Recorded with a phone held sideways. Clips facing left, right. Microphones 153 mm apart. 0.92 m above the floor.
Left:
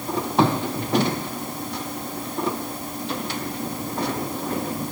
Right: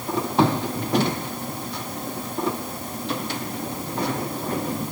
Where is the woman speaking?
No woman speaking in this recording.